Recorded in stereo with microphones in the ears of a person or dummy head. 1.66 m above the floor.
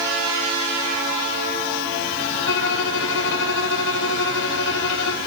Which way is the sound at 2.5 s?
65° left (ahead or behind).